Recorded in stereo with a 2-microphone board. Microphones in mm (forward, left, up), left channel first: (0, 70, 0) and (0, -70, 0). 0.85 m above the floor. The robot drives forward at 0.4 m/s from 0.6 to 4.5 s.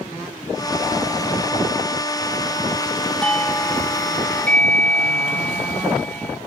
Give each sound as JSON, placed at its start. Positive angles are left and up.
{"t": 3.2, "sound": "a doorbell", "side_deg": 10}